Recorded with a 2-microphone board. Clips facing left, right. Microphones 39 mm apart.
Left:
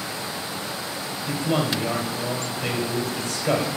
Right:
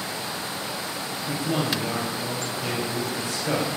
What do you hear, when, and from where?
1.3 s a man speaking: 65° left (ahead or behind), 2 m